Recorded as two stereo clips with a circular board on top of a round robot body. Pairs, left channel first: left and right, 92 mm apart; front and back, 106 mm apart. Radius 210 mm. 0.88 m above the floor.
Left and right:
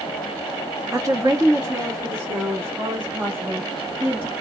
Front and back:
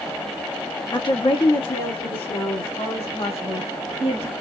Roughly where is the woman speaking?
Ahead right.